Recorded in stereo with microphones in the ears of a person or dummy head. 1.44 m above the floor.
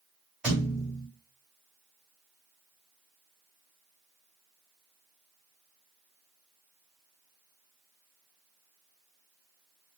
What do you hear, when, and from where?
0.4 s a thud: centre (ahead or behind), 2.5 m